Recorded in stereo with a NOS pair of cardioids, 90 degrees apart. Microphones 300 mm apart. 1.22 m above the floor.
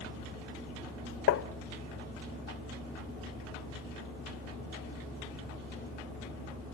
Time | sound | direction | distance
1.3 | tapping | 50° left | 1.1 m